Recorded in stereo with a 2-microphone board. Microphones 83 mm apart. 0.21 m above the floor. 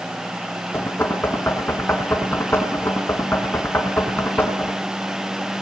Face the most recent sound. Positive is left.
turn(degrees=30)  # may be behind; listen again after turning